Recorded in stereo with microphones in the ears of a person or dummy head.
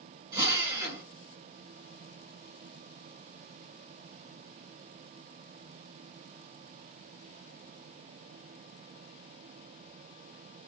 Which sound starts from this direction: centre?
A drill, at 0.3 s.